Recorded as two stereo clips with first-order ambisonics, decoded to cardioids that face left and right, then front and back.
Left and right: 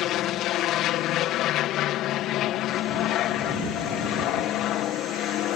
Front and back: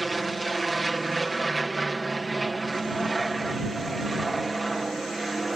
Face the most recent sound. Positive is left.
turn(degrees=105)